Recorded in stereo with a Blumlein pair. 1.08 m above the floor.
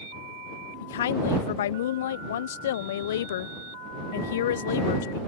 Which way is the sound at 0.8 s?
60° left.